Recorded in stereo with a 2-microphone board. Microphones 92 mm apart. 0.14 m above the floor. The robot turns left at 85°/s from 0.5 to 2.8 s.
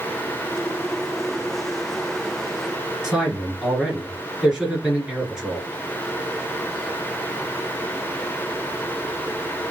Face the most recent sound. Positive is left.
turn(degrees=-5)  # may be behind; listen again after turning